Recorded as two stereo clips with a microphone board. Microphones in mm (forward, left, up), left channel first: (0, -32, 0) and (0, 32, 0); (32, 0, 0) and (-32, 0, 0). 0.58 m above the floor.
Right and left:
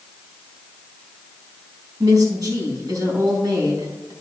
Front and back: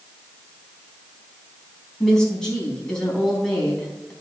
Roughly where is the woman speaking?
Left.